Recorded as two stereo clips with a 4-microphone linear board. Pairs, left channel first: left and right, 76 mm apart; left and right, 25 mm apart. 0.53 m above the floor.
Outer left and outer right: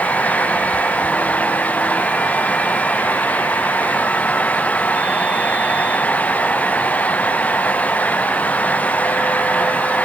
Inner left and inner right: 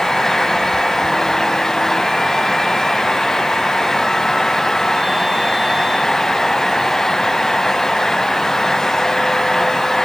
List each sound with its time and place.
Only background noise.